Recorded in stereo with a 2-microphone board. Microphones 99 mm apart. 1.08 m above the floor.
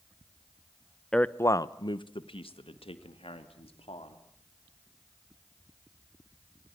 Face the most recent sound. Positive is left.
turn(degrees=75)  # may be behind; listen again after turning